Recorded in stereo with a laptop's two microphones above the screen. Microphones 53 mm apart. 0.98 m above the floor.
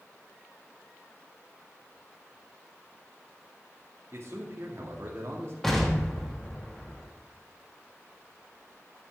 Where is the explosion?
10° left (ahead or behind), 1.3 m.